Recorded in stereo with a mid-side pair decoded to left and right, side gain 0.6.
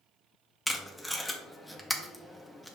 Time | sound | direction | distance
0.7 | tape being pulled | straight ahead | 0.8 m